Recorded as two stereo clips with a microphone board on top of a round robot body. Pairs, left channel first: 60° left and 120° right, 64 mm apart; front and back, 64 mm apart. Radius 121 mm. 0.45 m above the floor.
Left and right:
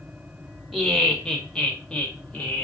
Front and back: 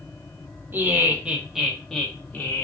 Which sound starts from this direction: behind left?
Laughter, at 0.7 s.